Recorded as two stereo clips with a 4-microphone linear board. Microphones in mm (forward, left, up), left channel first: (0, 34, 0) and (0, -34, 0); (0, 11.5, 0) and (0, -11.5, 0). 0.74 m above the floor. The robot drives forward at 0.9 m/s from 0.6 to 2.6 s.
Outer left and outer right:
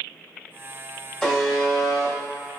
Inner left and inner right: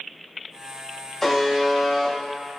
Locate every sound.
1.2 s a buzzer: 10° left (ahead or behind), 1.4 m; by 2.1 s 5° left (ahead or behind), 2 m